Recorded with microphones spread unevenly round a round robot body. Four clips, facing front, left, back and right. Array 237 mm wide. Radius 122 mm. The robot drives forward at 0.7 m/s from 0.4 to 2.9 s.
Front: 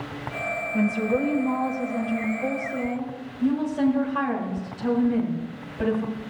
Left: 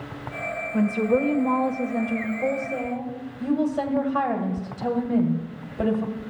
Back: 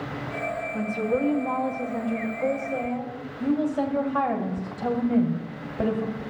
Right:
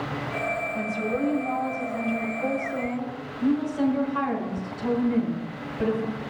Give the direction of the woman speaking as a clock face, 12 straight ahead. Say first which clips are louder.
Left 6 dB, front 3 dB; 9 o'clock.